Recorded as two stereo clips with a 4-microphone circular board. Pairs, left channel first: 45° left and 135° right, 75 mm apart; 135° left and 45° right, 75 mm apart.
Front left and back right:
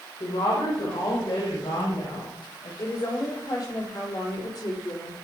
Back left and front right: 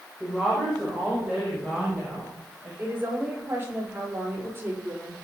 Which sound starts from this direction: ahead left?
A woman speaking, at 0.2 s.